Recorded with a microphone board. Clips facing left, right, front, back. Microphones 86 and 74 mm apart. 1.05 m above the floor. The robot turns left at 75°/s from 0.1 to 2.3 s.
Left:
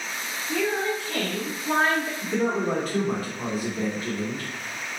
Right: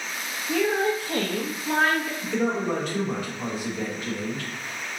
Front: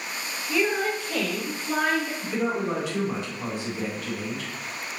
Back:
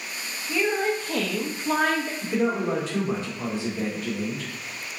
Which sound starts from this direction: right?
A woman speaking, at 0.5 s.